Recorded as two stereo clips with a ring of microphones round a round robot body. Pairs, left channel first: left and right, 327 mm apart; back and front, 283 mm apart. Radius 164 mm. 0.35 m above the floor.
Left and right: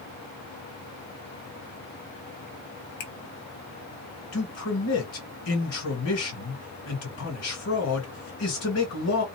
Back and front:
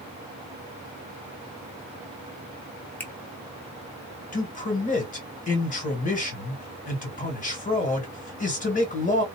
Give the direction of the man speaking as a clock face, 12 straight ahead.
8 o'clock.